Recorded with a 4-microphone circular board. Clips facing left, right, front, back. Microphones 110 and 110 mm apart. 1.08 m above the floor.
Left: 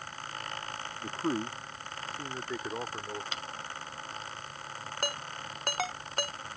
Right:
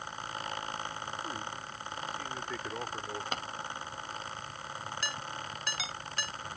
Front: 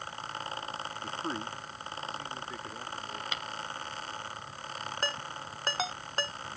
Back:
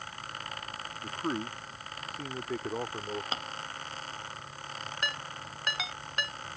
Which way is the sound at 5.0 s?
55° left.